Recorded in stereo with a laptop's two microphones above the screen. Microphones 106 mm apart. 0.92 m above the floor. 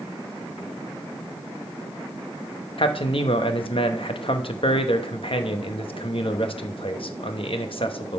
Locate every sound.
2.8 s a man speaking: 60° left (ahead or behind), 0.8 m